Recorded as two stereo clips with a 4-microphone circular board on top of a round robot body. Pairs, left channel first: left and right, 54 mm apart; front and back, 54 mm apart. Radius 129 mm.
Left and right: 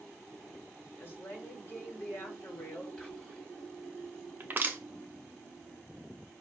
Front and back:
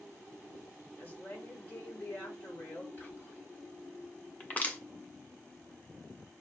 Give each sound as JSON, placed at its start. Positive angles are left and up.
{"t": 1.0, "sound": "a woman speaking", "azimuth_deg": 50, "distance_m": 1.9}
{"t": 3.0, "sound": "whispering", "azimuth_deg": 40, "distance_m": 1.8}
{"t": 4.4, "sound": "crushing", "azimuth_deg": -50, "distance_m": 0.9}